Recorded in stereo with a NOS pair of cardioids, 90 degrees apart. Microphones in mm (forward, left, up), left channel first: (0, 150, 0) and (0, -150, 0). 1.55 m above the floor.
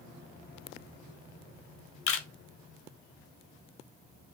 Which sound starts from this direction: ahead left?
A camera shutter, at 2.1 s.